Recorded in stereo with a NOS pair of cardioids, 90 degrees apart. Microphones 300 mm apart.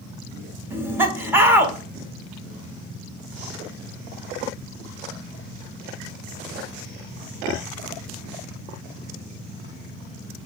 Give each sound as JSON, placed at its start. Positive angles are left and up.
{"t": 0.7, "sound": "laughter", "azimuth_deg": -5, "distance_m": 0.9}